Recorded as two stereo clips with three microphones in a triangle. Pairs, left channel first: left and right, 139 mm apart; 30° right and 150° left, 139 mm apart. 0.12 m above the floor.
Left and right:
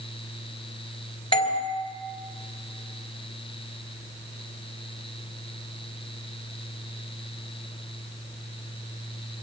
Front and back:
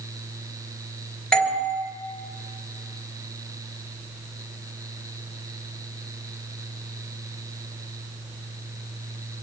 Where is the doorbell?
50° left, 3 m.